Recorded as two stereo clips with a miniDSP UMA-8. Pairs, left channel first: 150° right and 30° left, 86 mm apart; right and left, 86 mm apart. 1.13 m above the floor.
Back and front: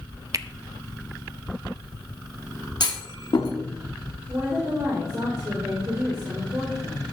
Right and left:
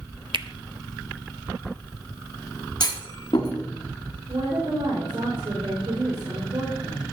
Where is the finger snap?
75° left, 0.6 m.